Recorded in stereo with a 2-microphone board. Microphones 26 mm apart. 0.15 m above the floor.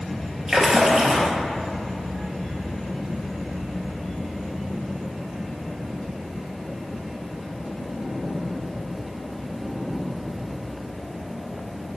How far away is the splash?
About 0.6 m.